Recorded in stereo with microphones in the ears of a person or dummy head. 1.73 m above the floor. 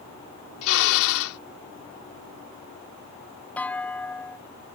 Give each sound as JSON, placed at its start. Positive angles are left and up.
{"t": 0.6, "sound": "a drill", "side_deg": 85}
{"t": 3.6, "sound": "a clunk", "side_deg": 10}